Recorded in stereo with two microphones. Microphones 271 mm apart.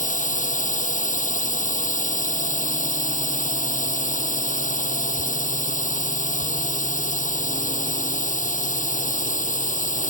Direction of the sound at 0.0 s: 30° left (ahead or behind).